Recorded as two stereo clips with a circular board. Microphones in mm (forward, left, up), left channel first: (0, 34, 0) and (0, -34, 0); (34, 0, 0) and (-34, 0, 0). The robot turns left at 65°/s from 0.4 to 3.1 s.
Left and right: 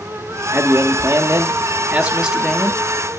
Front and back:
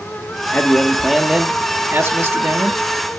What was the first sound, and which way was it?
A man speaking, 55° right.